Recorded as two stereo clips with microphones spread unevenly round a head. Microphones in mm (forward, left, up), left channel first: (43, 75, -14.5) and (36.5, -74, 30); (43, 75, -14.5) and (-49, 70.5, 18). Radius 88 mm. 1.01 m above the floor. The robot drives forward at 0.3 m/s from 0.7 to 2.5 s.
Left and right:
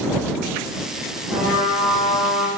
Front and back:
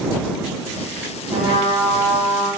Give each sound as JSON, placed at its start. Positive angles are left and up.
{"t": 1.3, "sound": "a trumpet", "azimuth_deg": -175, "distance_m": 2.0}